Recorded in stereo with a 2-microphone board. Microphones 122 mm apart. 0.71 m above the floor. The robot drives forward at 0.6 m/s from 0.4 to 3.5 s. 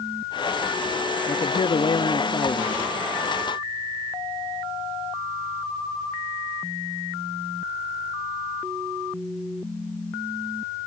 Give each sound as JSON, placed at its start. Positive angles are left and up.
{"t": 1.3, "sound": "a man speaking", "side_deg": 50, "distance_m": 0.7}